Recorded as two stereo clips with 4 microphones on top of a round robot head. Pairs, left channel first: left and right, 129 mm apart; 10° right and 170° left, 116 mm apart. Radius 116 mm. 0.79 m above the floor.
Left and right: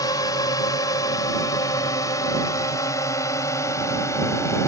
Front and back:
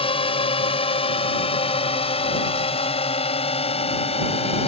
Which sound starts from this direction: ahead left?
A drone, at 0.0 s.